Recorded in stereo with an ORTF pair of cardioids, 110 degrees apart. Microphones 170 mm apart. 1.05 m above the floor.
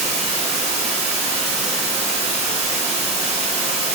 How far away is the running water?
About 0.8 m.